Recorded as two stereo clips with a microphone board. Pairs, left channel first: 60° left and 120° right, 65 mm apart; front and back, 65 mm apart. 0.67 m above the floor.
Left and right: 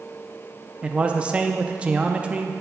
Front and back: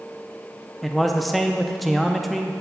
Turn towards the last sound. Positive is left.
turn(degrees=-90)